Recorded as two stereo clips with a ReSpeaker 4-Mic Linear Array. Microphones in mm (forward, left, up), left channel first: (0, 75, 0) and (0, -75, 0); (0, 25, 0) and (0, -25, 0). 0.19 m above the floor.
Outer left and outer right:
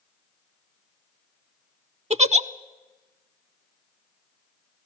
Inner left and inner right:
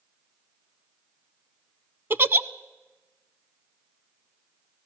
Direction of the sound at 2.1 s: 50° right (ahead or behind).